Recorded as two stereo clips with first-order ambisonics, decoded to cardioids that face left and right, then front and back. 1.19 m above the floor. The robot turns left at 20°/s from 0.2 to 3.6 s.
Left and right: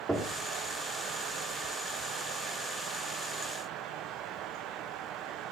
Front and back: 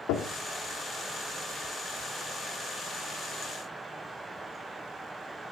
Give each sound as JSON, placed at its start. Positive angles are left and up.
{"t": 0.1, "sound": "knocking", "azimuth_deg": -10, "distance_m": 2.0}